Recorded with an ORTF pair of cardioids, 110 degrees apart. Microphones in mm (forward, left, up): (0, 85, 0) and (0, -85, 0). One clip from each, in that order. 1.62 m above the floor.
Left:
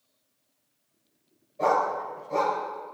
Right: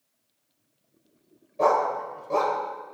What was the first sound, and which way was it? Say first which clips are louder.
A dog barking: right 2 dB; 45° right.